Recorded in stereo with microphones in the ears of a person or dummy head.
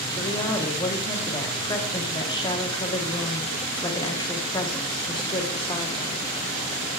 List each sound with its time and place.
0.2 s a woman speaking: 20° left (ahead or behind), 1.2 m